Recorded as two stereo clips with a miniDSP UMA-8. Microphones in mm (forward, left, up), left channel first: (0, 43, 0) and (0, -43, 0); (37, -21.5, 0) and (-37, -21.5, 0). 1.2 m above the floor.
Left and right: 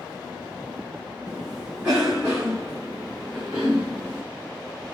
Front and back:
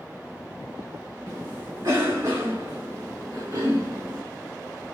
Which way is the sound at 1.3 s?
165° right.